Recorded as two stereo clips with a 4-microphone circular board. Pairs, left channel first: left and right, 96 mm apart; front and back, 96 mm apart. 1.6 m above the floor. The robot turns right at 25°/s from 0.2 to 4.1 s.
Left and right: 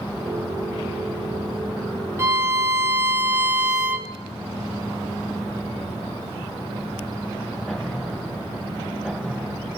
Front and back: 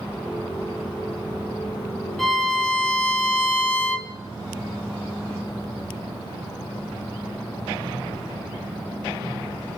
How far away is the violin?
About 1.3 m.